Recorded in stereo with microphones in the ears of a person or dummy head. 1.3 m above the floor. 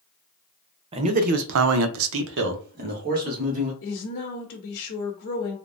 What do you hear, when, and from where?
0.9 s a man speaking: 30° right (ahead or behind), 0.6 m; by 3.7 s 50° right (ahead or behind), 1.4 m
3.8 s a woman speaking: 60° left (ahead or behind), 0.9 m